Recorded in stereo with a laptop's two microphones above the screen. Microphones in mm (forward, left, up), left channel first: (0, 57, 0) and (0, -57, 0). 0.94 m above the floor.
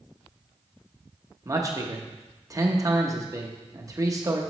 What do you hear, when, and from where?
1.4 s a man speaking: 30° right (ahead or behind), 0.8 m